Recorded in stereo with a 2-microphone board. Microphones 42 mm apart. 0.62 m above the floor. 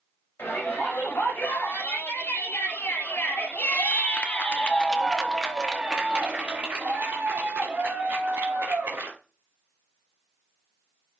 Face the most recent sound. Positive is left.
turn(degrees=-70)  # may be behind; listen again after turning